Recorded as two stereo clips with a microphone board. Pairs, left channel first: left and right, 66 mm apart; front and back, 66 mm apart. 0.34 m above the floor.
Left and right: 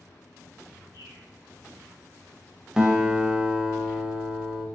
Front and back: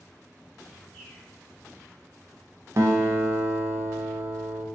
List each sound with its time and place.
0.9 s a bird: 80° right, 1.1 m
2.8 s a guitar: 165° right, 0.5 m